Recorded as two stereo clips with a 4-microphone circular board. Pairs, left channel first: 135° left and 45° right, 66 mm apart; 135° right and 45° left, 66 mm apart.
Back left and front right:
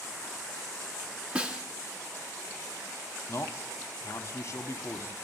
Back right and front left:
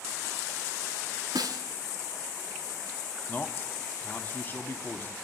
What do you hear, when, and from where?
1.4 s a snare drum: 25° left, 2 m
3.3 s a man speaking: 170° left, 1.8 m